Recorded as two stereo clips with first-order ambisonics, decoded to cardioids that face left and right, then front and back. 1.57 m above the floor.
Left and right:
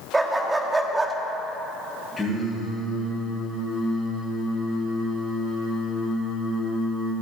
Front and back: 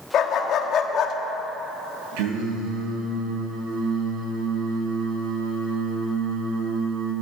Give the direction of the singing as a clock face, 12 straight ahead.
6 o'clock.